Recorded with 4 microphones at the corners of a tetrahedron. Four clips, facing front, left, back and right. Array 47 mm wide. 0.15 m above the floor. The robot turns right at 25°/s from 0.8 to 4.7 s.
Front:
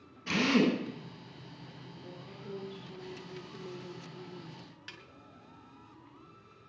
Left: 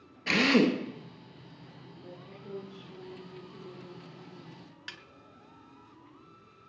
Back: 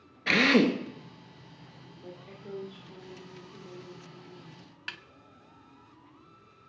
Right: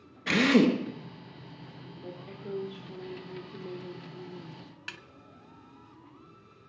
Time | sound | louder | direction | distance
0.3 | a drill | right 1 dB, back 5 dB | 170° right | 2 m
2.0 | a woman speaking | right 6 dB, back 2 dB | 120° right | 4 m
4.9 | a snare drum | right 3 dB, back 10 dB | 165° right | 0.8 m